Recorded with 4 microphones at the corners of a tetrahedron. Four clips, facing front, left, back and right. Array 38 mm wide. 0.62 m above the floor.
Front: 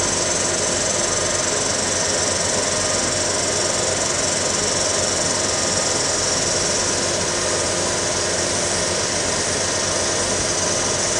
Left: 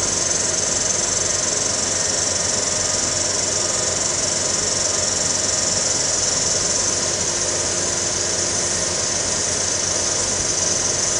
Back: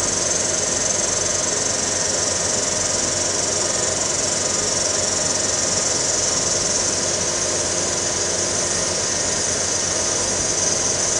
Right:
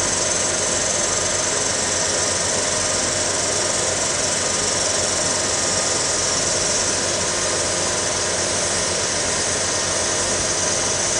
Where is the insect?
25° right, 2.5 m.